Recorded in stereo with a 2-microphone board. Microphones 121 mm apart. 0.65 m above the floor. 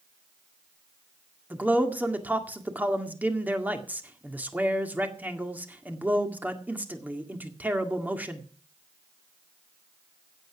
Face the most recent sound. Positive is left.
turn(degrees=-15)  # may be behind; listen again after turning